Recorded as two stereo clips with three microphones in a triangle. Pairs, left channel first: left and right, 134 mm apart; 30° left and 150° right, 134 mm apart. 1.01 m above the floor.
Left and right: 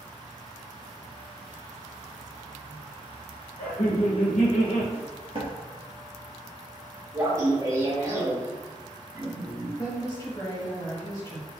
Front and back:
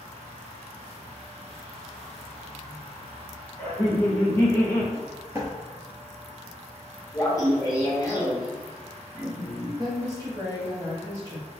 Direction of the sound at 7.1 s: 30° right.